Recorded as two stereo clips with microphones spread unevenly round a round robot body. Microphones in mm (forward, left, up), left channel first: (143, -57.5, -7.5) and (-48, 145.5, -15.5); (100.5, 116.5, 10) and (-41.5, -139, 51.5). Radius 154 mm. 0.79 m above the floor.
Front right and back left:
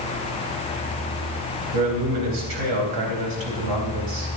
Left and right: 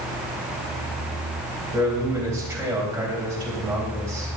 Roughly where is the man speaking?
Behind.